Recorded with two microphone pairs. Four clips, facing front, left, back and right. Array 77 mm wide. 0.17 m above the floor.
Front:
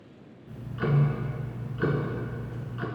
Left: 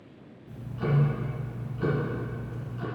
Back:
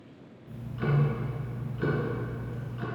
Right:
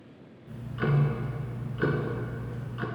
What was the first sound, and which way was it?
Ticking, 55° right.